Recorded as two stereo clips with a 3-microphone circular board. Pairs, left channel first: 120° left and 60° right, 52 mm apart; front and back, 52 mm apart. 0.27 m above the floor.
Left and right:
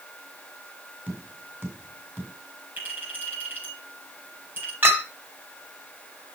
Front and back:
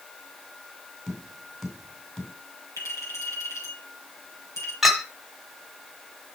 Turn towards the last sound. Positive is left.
turn(degrees=-95)